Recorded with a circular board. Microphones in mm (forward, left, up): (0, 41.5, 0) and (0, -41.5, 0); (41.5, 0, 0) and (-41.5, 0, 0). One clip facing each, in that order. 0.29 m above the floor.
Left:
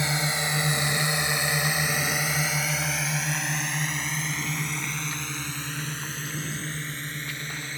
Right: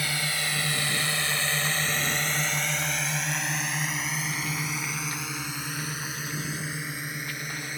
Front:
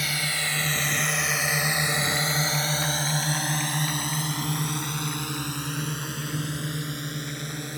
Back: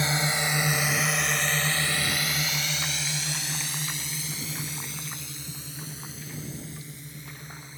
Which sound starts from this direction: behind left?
A drone, at 0.0 s.